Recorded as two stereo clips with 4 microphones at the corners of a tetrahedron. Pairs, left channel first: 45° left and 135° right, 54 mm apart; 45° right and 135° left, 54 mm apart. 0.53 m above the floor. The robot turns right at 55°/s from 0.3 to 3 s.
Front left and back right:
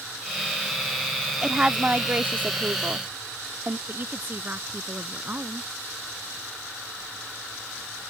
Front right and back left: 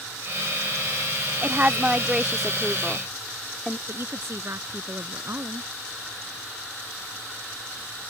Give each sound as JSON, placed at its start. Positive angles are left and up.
{"t": 1.4, "sound": "a woman speaking", "azimuth_deg": 155}
{"t": 3.9, "sound": "a woman speaking", "azimuth_deg": 170}